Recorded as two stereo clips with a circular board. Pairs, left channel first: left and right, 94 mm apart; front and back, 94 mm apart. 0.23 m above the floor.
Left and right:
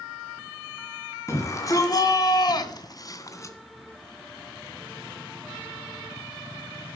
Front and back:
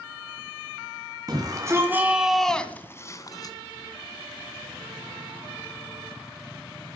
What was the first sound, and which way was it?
A shout, 145° left.